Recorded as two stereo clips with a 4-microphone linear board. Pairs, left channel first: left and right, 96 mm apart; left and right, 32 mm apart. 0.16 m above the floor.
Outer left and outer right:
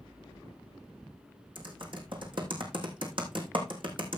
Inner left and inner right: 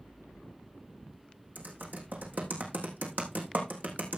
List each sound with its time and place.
1.6 s typing on a keyboard: 65° right (ahead or behind), 3 m